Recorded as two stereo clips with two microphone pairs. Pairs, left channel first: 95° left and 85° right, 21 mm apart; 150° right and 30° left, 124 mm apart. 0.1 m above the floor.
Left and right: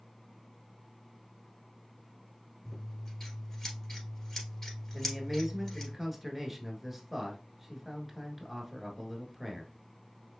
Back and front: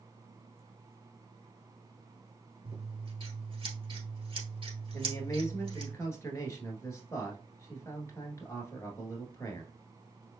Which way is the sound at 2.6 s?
45° left.